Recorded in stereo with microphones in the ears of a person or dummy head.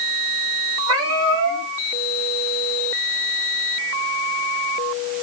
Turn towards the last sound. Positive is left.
turn(degrees=-70)  # may be behind; listen again after turning